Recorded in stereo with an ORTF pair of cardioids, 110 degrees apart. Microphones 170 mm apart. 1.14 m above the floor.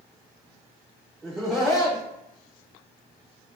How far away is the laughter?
About 1.3 m.